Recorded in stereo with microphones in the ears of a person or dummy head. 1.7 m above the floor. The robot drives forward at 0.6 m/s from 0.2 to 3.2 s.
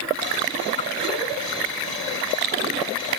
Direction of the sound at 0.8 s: 20° left (ahead or behind).